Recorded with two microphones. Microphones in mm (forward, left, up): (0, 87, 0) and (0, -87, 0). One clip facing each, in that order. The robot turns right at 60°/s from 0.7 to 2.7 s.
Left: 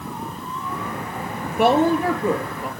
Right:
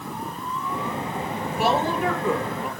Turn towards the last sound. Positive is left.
turn(degrees=180)